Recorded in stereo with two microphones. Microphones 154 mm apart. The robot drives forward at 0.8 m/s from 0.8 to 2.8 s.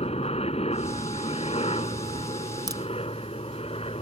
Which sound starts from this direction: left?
A helicopter, at 0.0 s.